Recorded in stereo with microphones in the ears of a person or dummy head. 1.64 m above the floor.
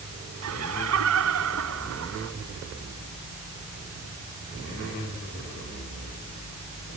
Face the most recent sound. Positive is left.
turn(degrees=-80)